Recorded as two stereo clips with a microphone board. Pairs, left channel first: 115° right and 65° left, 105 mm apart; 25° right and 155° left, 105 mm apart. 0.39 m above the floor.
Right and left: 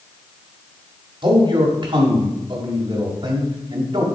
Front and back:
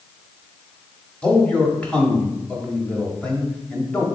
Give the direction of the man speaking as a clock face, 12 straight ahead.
10 o'clock.